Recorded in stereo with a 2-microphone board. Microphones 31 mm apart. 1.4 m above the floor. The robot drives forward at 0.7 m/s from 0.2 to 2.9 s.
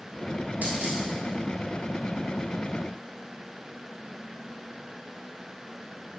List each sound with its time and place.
0.6 s a dropped coin: 65° right (ahead or behind), 3 m; by 1.0 s 60° right (ahead or behind), 3 m